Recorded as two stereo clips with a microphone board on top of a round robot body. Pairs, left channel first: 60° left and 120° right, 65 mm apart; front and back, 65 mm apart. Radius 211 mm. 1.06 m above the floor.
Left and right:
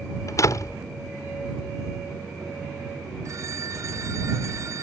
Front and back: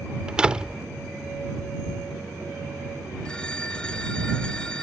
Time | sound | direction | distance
0.3 | a door slam | 100° left | ?
3.2 | a phone ringing | 80° right | ?